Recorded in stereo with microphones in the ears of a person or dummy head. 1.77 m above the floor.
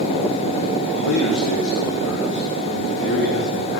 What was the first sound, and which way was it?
A man speaking, 75° left (ahead or behind).